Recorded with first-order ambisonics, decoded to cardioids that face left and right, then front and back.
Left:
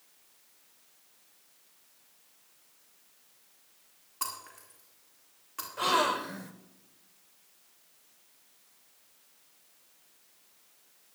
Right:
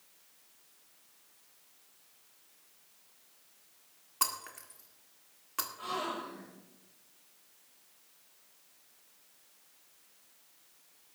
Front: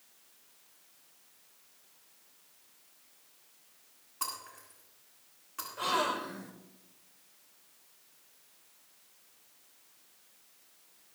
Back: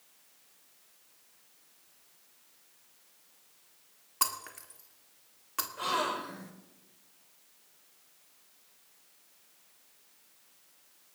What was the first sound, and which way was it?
Breaking glass, 145° right.